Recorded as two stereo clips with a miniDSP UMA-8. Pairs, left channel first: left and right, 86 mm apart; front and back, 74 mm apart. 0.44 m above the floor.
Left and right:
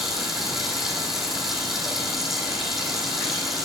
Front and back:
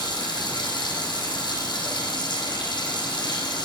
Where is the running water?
5° right, 6 m.